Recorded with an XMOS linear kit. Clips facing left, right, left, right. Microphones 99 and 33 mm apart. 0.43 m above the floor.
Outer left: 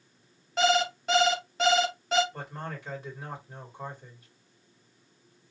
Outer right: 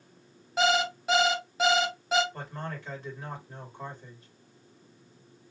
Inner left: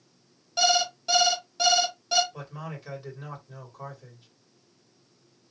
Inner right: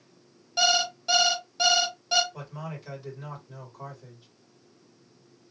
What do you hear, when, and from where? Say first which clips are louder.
0.6 s an alarm clock: outer left 1 dB, even; 5° right (ahead or behind), 1.3 m
2.3 s a man speaking: even, even; 10° left (ahead or behind), 2 m